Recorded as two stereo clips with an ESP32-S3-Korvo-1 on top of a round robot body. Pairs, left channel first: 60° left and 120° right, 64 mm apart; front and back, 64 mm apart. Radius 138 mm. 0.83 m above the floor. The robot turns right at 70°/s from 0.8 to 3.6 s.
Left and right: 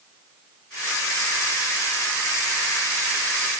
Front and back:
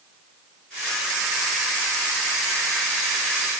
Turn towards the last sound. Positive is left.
No sound to turn to.